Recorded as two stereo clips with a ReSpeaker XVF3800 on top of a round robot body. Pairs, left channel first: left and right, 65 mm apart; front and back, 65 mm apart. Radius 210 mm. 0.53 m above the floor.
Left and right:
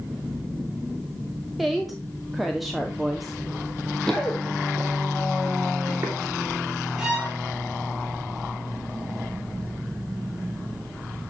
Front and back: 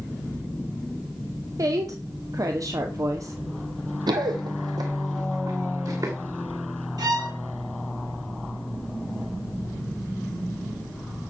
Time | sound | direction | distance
1.6 | a woman speaking | straight behind | 1.9 m
4.1 | running footsteps | 170° left | 1.3 m
7.0 | a violin | 170° right | 4 m